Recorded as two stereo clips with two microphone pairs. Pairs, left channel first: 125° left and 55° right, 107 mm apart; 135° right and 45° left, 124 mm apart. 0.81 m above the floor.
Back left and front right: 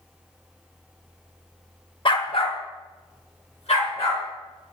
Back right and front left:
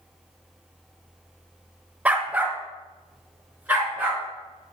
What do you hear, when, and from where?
2.0 s a dog barking: 120° left, 0.7 m; by 4.2 s 125° left, 3.5 m